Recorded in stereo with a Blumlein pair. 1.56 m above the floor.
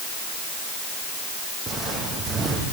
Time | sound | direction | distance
1.7 | footsteps | 10° right | 5 m